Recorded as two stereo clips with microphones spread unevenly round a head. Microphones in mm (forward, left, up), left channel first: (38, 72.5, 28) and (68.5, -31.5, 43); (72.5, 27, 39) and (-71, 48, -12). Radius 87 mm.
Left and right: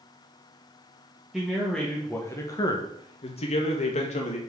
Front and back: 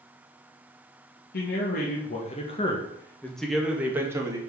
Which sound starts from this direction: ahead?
A man speaking, at 1.3 s.